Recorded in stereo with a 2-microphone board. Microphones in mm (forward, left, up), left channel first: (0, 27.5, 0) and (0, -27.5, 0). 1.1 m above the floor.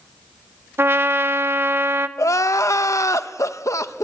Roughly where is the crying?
Left.